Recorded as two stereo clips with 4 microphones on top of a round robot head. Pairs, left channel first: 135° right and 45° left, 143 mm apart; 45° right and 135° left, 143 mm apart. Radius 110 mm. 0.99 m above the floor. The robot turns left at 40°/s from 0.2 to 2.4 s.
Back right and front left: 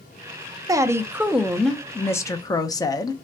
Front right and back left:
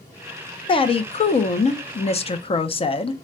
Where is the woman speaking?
10° right, 0.7 m; by 3.1 s 80° right, 0.7 m.